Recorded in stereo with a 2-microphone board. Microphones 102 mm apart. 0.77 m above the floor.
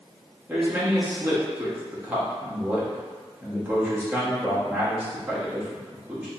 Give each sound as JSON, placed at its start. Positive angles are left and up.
{"t": 0.5, "sound": "a man speaking", "side_deg": -15, "distance_m": 1.1}